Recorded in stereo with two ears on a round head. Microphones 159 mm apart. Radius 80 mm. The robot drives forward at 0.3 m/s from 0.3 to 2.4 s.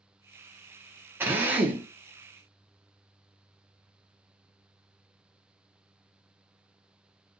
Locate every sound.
1.2 s a drill: 15° right (ahead or behind), 0.7 m; by 1.9 s 10° right (ahead or behind), 0.8 m